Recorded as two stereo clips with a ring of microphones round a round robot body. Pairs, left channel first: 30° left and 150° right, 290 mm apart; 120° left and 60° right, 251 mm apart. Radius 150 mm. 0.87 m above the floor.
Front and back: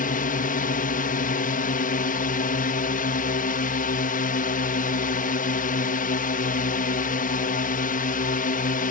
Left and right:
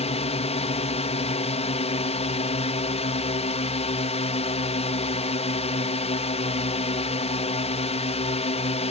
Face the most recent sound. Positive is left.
turn(degrees=70)